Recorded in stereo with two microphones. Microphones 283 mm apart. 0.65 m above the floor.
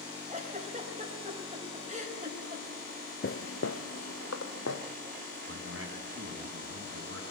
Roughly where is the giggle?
Right.